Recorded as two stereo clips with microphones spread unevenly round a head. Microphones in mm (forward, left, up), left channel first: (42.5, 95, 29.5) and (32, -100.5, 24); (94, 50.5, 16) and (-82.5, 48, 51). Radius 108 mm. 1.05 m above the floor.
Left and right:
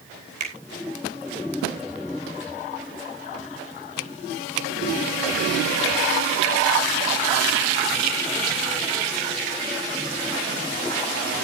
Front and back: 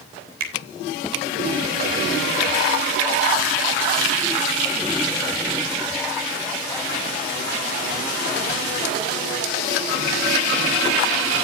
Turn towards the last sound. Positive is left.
turn(degrees=-150)